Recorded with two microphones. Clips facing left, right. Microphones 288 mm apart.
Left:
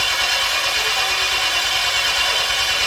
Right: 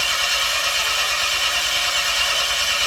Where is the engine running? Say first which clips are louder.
Left 3 dB; 70° left (ahead or behind), 2.5 m.